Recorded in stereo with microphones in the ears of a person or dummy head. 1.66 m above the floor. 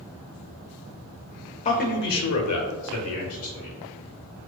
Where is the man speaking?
30° left (ahead or behind), 0.6 m; by 3.8 s 65° left (ahead or behind), 1.2 m.